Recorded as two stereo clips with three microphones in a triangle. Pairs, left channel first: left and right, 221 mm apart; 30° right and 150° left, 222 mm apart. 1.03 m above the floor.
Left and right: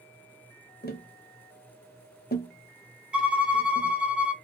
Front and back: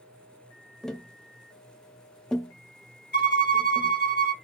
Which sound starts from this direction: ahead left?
Tapping, at 0.8 s.